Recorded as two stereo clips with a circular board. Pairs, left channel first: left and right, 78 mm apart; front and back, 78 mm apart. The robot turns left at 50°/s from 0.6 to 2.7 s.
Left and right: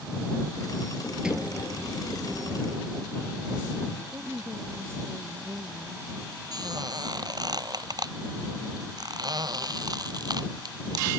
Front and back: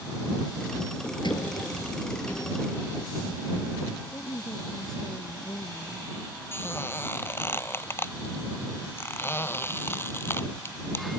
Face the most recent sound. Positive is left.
turn(degrees=-60)